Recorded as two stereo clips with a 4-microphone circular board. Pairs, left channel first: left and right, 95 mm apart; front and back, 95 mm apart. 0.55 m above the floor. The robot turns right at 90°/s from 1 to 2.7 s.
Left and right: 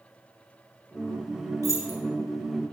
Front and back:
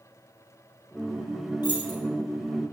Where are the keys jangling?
40° right, 3 m; by 2.0 s 10° right, 3 m.